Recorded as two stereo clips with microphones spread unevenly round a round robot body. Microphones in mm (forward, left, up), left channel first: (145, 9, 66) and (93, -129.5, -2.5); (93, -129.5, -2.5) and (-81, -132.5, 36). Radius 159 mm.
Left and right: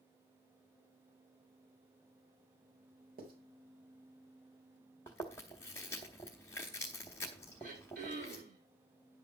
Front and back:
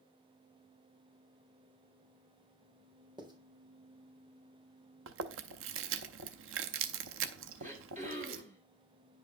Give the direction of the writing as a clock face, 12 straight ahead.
4 o'clock.